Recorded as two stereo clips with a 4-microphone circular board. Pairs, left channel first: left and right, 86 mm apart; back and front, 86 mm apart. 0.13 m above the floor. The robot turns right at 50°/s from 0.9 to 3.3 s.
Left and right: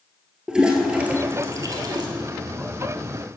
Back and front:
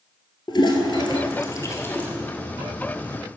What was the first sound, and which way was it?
A toilet flushing, 170° right.